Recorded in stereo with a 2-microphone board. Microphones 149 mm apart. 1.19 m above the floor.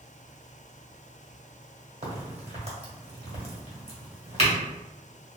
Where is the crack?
45° right (ahead or behind), 1.1 m.